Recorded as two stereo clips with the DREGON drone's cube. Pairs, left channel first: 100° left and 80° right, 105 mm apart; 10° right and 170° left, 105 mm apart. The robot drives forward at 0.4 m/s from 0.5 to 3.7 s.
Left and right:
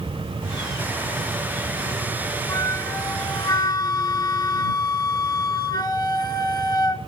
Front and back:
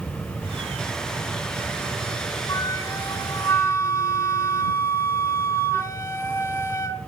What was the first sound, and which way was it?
A flute, 45° left.